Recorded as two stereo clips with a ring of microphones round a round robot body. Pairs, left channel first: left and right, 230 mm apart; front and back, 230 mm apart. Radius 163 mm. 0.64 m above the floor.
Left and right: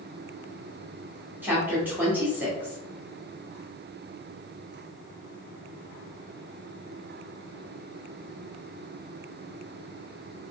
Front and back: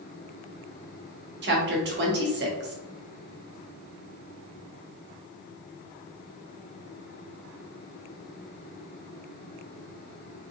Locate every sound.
1.4 s a woman speaking: 170° right, 1.3 m